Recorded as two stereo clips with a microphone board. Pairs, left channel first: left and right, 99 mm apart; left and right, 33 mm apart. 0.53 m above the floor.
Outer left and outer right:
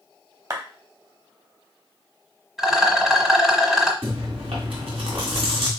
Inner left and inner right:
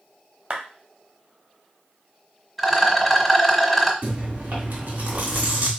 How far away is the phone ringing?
I don't hear a phone ringing.